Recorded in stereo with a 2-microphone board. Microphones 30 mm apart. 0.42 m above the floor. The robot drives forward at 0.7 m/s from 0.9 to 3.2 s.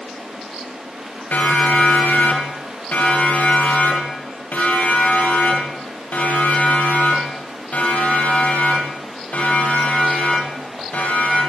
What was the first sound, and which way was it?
A siren, 85° left.